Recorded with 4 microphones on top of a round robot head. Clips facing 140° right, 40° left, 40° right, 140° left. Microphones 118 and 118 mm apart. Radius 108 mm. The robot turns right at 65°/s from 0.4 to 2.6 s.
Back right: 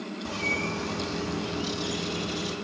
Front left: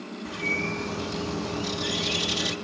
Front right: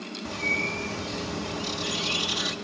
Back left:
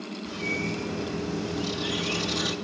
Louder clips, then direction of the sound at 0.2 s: Front left 1 dB, back left 1 dB; 85° right.